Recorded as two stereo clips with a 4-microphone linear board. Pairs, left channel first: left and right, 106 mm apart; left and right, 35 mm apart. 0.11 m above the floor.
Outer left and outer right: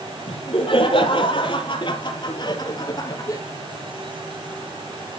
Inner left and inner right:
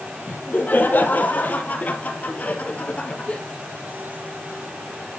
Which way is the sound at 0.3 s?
60° left (ahead or behind).